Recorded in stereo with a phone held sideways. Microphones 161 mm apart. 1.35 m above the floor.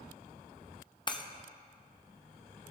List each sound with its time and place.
1.1 s breaking glass: 30° left (ahead or behind), 0.6 m